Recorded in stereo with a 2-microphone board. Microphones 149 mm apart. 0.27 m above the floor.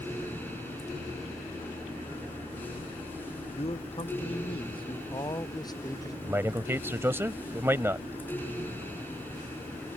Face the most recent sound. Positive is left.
turn(degrees=-15)  # may be behind; listen again after turning